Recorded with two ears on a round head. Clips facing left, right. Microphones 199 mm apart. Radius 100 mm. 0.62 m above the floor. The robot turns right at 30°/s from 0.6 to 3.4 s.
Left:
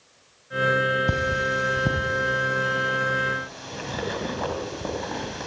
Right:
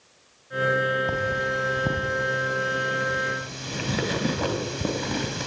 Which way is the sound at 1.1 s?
30° left (ahead or behind).